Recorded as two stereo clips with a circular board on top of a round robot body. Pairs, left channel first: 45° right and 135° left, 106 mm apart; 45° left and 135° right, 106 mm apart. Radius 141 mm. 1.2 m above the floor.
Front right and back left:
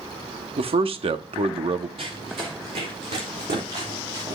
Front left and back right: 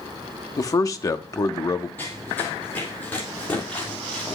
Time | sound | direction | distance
0.6 | a man speaking | 105° left | 0.8 m
2.0 | running footsteps | 115° left | 5 m